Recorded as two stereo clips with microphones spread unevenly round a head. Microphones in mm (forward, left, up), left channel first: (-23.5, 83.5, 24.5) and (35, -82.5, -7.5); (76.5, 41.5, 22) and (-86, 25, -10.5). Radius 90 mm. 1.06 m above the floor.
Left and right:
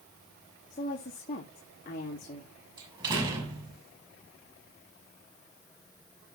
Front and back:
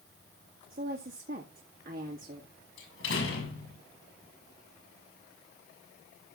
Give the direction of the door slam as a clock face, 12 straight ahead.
12 o'clock.